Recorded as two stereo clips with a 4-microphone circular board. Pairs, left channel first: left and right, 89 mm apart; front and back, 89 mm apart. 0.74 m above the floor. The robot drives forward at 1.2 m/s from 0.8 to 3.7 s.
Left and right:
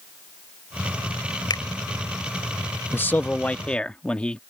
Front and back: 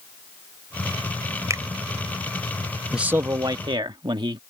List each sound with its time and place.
1.5 s a finger snap: 125° left; by 1.6 s 130° left
2.9 s a man speaking: 95° left; by 4.4 s 165° left